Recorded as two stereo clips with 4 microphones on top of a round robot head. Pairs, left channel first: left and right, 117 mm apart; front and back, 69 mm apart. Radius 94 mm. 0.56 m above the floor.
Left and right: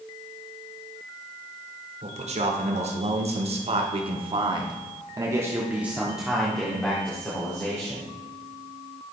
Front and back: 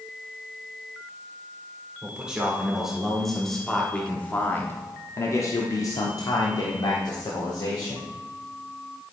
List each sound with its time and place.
2.0 s a man speaking: 105° right, 1.9 m; by 8.1 s 20° left, 2.0 m